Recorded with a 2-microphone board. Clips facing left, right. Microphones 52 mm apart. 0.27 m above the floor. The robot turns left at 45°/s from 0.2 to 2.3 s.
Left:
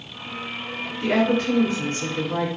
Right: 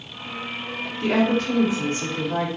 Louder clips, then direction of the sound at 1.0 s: Even; 15° left.